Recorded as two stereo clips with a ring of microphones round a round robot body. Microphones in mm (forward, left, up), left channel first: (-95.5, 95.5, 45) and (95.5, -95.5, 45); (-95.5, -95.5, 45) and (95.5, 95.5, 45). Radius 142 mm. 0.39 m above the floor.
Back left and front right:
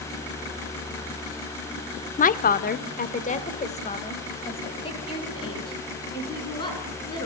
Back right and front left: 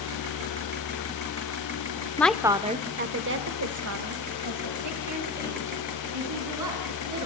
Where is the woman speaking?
150° left, 0.8 m; by 7.3 s 60° left, 4.5 m.